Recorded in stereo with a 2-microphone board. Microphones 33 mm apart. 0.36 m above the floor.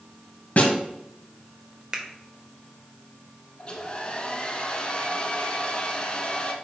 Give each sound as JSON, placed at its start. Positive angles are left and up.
{"t": 0.6, "sound": "a snare drum", "side_deg": 50, "distance_m": 2.0}
{"t": 1.9, "sound": "a finger snap", "side_deg": -25, "distance_m": 1.3}
{"t": 3.6, "sound": "a hair dryer", "side_deg": 30, "distance_m": 1.3}